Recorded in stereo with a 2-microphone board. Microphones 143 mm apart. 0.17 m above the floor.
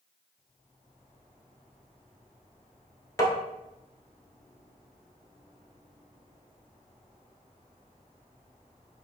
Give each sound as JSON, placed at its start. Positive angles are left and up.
{"t": 3.2, "sound": "tapping", "side_deg": 25, "distance_m": 1.0}